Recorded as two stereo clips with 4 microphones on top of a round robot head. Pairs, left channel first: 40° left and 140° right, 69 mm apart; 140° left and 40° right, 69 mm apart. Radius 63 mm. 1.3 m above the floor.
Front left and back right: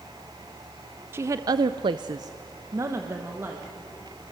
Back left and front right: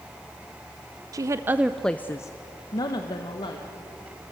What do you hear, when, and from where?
1.1 s a woman speaking: 80° right, 0.8 m; by 3.7 s 160° left, 2 m